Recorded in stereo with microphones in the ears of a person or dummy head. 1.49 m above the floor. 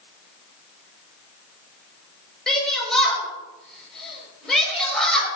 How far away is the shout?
About 7 m.